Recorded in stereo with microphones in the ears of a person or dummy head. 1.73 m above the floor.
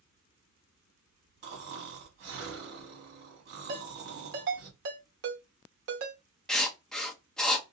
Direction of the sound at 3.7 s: 60° right (ahead or behind).